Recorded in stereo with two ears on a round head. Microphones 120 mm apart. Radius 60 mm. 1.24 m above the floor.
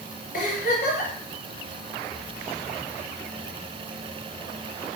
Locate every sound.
0.3 s a giggle: 75° left (ahead or behind), 3.5 m